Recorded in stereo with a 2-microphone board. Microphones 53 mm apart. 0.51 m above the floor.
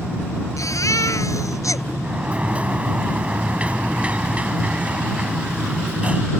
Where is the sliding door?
25° right (ahead or behind).